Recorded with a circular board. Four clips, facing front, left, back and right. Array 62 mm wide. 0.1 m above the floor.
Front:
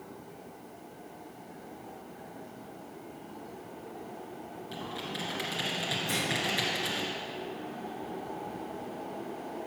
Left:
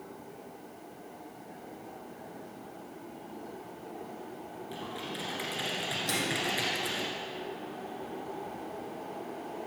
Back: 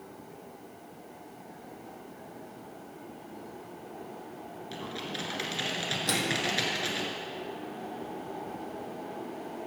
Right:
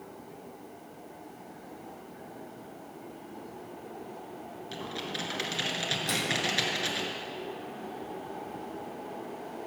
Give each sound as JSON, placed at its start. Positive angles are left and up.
{"t": 4.7, "sound": "typing on a keyboard", "azimuth_deg": -115, "distance_m": 1.8}
{"t": 6.1, "sound": "a microwave", "azimuth_deg": 180, "distance_m": 2.5}